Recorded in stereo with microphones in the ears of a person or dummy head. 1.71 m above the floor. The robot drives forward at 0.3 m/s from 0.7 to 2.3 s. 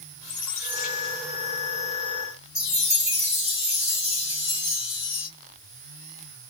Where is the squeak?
10° right (ahead or behind), 2 m; by 1.7 s 5° right (ahead or behind), 2.5 m.